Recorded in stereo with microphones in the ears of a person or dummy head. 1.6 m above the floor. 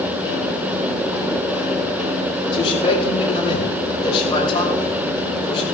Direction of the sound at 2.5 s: 25° left (ahead or behind).